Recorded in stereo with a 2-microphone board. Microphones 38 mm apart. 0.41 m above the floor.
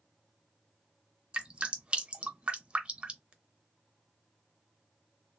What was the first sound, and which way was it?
Dripping, 30° right (ahead or behind).